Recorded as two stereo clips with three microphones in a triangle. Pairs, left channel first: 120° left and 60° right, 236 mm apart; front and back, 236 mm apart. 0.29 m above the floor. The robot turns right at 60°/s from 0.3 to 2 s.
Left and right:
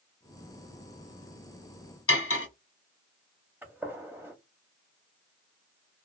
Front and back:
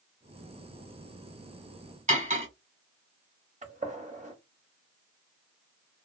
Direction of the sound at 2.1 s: 125° left.